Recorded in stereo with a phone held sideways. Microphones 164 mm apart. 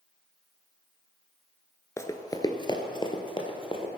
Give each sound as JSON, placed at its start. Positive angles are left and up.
{"t": 2.0, "sound": "running footsteps", "side_deg": 15, "distance_m": 0.9}